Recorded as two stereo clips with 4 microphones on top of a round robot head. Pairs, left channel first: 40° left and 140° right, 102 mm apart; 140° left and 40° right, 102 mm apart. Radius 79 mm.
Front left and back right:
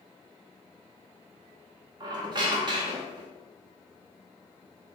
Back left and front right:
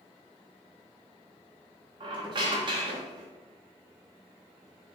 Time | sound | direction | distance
2.0 | a squeak | 90° right | 0.6 m